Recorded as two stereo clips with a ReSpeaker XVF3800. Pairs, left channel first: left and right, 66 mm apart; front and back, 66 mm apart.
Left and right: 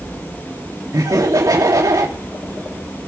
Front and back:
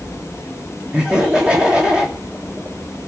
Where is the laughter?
110° right, 3 m.